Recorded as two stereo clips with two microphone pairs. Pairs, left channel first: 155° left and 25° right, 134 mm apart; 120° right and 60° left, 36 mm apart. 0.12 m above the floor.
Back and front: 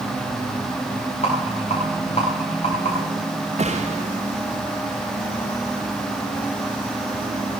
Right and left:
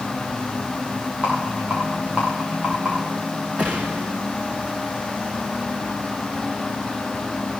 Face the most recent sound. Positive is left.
turn(degrees=10)